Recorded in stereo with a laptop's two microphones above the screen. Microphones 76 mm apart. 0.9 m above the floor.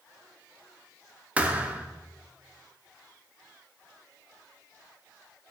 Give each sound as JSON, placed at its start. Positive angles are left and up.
{"t": 1.4, "sound": "a thud", "side_deg": -20, "distance_m": 0.7}